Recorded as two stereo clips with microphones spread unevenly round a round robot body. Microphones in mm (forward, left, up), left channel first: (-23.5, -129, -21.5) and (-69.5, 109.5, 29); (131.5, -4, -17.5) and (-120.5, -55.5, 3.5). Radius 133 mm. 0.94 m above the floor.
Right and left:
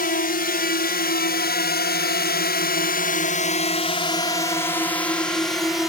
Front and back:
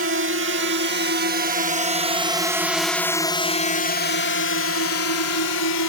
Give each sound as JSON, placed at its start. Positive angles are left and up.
{"t": 0.0, "sound": "a drone", "azimuth_deg": -130}